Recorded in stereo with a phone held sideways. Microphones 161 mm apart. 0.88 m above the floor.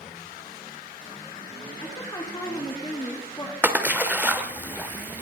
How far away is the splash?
About 1.2 m.